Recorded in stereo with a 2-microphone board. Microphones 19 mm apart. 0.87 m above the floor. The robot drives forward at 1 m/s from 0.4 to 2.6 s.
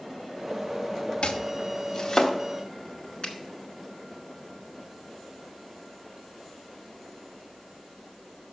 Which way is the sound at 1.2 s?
85° left.